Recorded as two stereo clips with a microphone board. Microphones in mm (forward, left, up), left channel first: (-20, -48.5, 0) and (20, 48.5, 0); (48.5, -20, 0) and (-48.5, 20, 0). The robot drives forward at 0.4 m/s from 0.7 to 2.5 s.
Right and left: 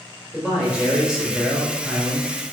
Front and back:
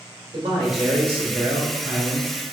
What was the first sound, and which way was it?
A man speaking, 145° left.